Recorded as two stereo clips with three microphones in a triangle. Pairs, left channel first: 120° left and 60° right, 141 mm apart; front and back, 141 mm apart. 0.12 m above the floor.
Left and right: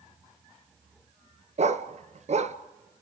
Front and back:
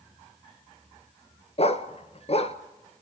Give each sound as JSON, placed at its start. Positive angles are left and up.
{"t": 1.6, "sound": "a dog barking", "azimuth_deg": -35, "distance_m": 0.9}